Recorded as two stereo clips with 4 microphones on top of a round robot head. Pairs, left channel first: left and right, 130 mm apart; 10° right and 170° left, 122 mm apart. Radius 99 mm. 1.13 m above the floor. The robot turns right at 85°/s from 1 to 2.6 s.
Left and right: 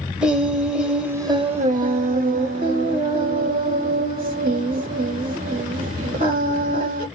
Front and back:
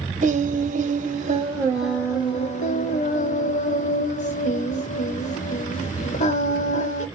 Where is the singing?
175° right, 2 m; by 7.1 s 35° right, 2 m.